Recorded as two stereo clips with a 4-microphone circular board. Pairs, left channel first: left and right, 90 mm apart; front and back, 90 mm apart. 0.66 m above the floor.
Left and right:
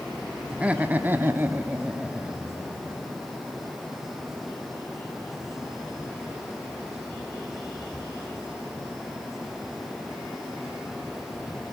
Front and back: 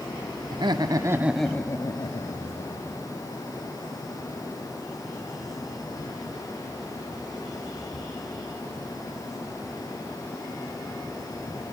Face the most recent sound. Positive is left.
turn(degrees=-5)